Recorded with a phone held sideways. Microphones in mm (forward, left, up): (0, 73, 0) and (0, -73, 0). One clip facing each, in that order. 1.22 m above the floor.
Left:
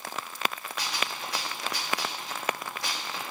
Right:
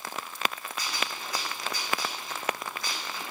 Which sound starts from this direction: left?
A gunshot, at 0.8 s.